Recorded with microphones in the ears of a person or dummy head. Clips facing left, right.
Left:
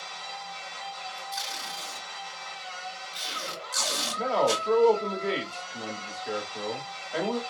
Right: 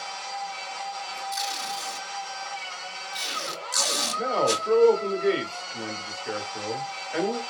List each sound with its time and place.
0.0 s a machine running: 60° right (ahead or behind), 1.0 m
1.3 s tape being pulled: 40° right (ahead or behind), 2.5 m
4.2 s a man speaking: 10° right (ahead or behind), 1.3 m